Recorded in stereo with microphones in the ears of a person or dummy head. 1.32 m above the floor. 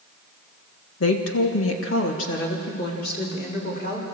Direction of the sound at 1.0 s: 70° left (ahead or behind).